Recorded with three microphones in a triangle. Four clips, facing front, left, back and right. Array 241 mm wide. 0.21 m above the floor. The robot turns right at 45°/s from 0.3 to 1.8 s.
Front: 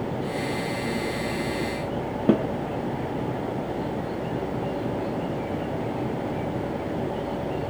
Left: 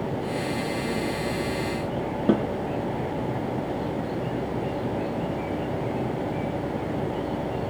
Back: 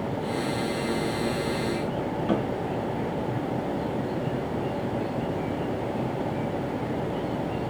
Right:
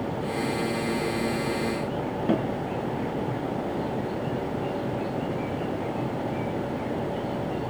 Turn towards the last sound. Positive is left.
turn(degrees=35)